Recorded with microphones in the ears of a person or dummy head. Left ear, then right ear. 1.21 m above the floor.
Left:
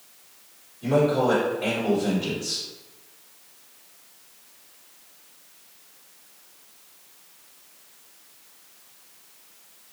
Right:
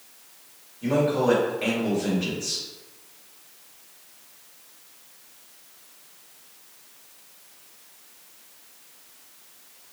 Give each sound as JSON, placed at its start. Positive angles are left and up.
{"t": 0.8, "sound": "a man speaking", "side_deg": -55, "distance_m": 1.2}